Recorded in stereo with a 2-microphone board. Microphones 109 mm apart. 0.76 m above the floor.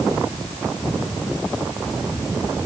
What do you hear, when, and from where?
Only background noise.